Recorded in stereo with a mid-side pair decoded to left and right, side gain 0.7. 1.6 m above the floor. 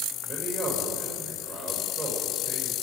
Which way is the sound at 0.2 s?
15° right.